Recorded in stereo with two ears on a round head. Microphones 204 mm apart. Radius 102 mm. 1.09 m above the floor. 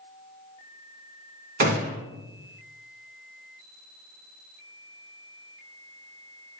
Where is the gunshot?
40° right (ahead or behind), 2.5 m.